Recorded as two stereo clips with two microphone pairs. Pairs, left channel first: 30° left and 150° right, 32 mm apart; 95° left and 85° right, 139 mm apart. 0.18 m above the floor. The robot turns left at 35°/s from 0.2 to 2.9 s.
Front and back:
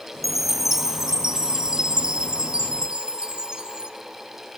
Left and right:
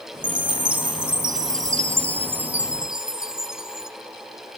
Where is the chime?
75° right, 0.7 m; by 3.9 s 165° right, 0.7 m.